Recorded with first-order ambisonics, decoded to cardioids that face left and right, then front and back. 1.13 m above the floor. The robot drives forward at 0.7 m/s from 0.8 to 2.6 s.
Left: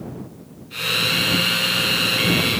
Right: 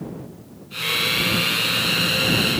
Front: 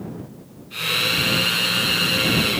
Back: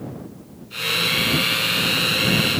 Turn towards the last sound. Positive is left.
No sound to turn to.